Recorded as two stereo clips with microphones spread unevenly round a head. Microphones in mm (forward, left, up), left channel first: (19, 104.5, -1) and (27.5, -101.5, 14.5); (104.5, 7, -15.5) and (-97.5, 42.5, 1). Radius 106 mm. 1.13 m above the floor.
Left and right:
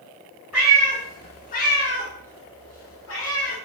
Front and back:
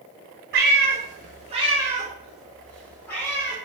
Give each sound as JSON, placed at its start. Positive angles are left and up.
{"t": 0.5, "sound": "a cat meowing", "azimuth_deg": -170, "distance_m": 0.9}